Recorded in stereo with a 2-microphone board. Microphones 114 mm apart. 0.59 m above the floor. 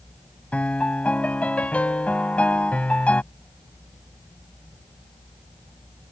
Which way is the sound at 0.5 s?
10° left (ahead or behind).